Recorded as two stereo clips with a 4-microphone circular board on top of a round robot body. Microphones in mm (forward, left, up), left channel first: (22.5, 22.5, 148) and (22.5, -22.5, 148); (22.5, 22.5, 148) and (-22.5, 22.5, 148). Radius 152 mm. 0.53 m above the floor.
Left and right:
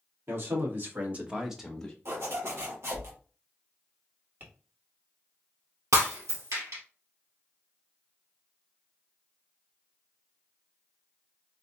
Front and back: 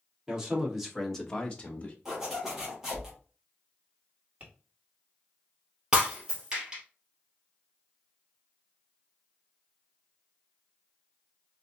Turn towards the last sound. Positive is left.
turn(degrees=-100)